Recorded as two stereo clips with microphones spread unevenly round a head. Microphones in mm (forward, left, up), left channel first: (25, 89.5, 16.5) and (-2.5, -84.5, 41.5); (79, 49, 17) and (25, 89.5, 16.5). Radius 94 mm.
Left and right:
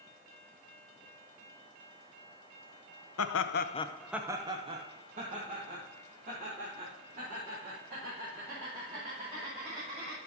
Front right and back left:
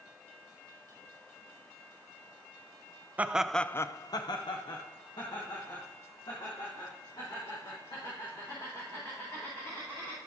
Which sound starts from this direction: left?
Laughter, at 3.2 s.